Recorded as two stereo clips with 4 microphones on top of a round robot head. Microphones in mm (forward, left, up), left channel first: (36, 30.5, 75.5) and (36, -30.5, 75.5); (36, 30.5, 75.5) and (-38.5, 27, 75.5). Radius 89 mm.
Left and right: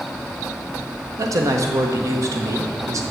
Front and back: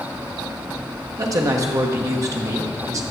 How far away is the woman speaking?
About 1.1 m.